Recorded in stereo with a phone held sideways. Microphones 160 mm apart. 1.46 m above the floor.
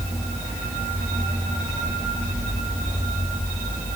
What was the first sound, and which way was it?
Only background noise.